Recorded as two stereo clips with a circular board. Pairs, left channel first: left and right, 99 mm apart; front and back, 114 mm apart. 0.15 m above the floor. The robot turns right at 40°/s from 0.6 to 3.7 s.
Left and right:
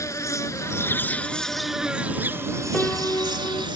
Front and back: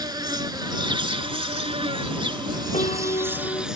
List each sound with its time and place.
0.0 s an insect: 140° left; by 3.8 s 95° right
2.7 s a piano: 15° left; by 3.7 s 50° left